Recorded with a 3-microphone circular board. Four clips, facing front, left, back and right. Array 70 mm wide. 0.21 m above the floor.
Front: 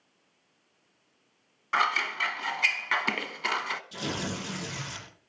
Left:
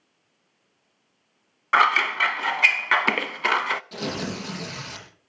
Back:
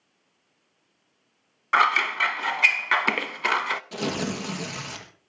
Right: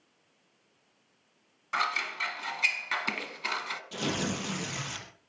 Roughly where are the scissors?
Behind left.